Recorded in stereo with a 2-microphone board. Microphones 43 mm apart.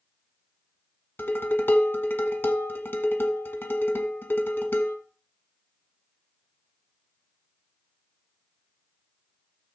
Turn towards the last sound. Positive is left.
turn(degrees=55)  # may be behind; listen again after turning